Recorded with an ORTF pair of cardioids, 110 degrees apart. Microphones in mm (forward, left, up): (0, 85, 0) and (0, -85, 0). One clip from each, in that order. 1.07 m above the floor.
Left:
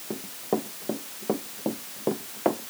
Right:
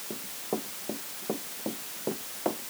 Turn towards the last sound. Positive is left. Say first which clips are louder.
# left 6 dB
turn(degrees=40)